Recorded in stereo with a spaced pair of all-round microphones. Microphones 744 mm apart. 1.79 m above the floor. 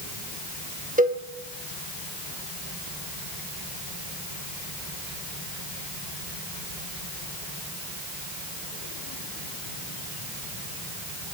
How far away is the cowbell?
About 1.1 m.